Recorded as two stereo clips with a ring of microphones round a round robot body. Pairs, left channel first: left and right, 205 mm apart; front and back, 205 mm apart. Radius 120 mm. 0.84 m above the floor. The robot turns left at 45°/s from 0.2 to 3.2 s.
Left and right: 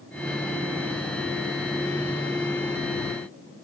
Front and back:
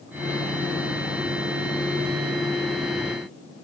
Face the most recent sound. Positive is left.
No sound to turn to.